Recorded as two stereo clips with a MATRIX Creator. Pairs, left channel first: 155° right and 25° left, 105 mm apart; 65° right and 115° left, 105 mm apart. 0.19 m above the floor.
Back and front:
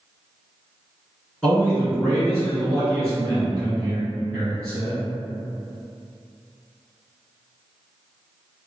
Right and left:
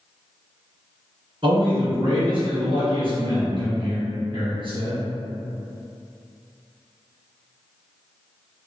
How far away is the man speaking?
About 1.8 m.